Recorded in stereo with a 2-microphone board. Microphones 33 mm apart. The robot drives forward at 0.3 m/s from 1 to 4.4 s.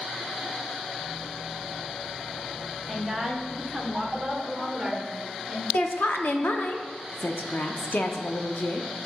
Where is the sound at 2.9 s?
5° left (ahead or behind), 0.8 m; by 5.6 s centre (ahead or behind), 1.2 m.